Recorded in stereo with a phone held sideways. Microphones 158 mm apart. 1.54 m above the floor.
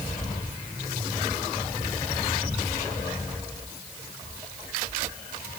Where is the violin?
No violin in this recording.